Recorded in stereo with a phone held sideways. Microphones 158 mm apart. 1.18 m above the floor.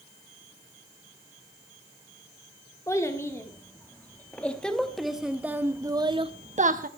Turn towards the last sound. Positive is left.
turn(degrees=-60)  # may be behind; listen again after turning